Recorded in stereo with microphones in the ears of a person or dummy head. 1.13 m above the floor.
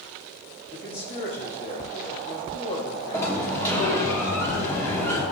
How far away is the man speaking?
About 2.5 m.